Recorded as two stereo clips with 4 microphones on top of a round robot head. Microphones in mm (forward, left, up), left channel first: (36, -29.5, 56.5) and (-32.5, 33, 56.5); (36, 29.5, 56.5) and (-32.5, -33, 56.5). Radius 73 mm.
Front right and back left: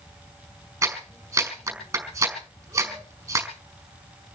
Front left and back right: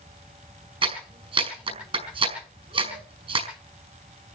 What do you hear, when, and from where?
0.8 s a clap: 160° right, 5 m